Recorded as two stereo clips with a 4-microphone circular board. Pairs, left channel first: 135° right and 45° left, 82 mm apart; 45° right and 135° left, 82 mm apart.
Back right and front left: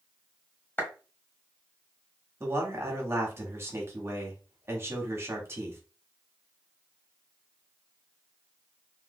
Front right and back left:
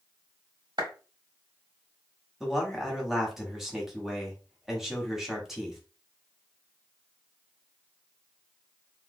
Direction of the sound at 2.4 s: 55° left.